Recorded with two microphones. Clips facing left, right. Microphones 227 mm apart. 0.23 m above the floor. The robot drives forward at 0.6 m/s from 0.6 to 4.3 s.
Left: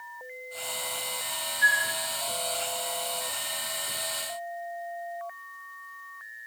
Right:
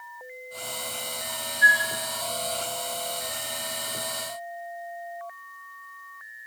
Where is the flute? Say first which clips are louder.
Right 5 dB; 20° right (ahead or behind), 1.5 m.